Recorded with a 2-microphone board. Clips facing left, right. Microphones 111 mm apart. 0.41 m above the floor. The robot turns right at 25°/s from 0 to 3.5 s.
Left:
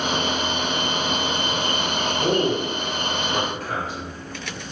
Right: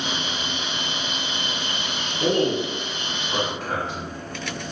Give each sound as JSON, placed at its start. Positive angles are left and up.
{"t": 2.2, "sound": "a man speaking", "side_deg": -35, "distance_m": 1.5}